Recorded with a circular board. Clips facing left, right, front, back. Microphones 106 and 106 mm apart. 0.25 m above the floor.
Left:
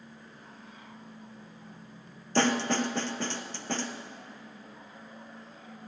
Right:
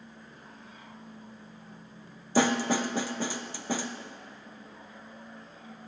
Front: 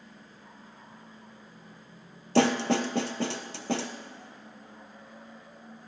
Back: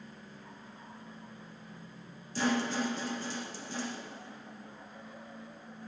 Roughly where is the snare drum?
Ahead.